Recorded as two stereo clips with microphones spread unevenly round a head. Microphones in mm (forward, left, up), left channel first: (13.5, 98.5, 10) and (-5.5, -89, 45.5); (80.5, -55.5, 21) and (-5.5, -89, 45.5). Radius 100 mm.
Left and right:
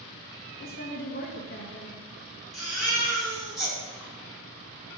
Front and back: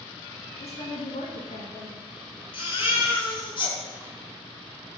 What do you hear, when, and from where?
0.6 s a woman speaking: 40° left, 2.5 m
2.5 s a baby crying: 10° right, 4 m